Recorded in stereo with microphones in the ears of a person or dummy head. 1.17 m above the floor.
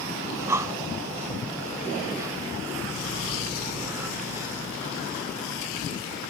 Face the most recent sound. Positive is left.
turn(degrees=-10)  # may be behind; listen again after turning